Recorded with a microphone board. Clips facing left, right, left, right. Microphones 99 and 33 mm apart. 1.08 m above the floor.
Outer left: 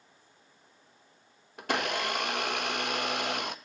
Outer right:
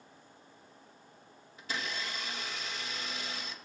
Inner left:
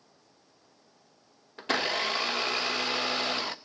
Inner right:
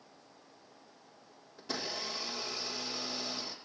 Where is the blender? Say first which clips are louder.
Outer left 9 dB, inner left 11 dB; 65° left (ahead or behind), 0.9 m.